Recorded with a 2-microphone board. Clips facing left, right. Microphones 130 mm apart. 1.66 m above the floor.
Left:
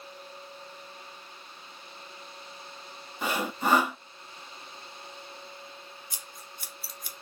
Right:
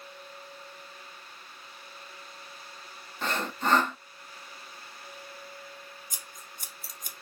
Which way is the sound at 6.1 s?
45° right (ahead or behind).